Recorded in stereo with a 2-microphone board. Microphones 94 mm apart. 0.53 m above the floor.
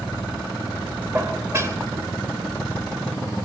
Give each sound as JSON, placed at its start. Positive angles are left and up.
{"t": 1.1, "sound": "dishes clattering", "side_deg": -30, "distance_m": 1.3}